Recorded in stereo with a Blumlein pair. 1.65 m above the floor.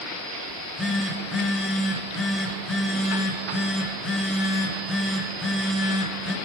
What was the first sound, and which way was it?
A phone buzzing, 10° left.